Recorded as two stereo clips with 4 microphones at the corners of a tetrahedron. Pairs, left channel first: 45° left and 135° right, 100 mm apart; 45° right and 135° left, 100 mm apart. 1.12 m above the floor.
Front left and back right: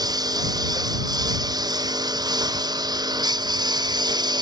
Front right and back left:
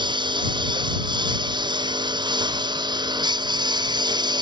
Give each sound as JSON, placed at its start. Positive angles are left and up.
{"t": 0.0, "sound": "a lawn mower", "azimuth_deg": 175}